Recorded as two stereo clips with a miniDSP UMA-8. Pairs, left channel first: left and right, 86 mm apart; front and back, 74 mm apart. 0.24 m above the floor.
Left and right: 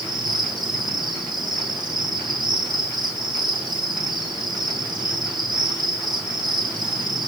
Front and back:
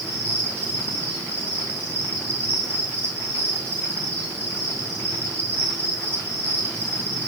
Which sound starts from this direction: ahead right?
An insect, at 0.0 s.